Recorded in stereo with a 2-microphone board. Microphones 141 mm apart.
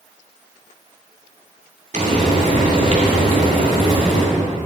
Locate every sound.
1.9 s frying: 65° right (ahead or behind), 2.5 m